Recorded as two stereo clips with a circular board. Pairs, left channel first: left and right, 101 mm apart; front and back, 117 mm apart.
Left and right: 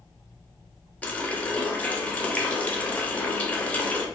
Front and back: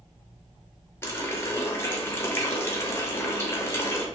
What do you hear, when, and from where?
1.0 s a running tap: 30° left, 0.5 m